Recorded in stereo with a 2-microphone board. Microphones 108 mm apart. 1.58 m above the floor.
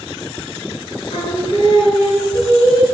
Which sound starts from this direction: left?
Singing, at 1.1 s.